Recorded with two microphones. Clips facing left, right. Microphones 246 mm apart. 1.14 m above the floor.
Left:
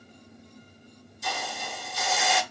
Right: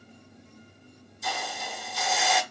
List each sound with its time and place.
1.2 s a hiss: centre (ahead or behind), 0.8 m